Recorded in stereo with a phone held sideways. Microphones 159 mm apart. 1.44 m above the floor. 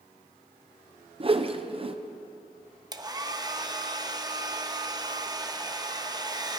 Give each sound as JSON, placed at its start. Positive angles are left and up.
{"t": 1.2, "sound": "a whoosh", "side_deg": -35, "distance_m": 0.8}
{"t": 2.9, "sound": "a hair dryer", "side_deg": -25, "distance_m": 0.8}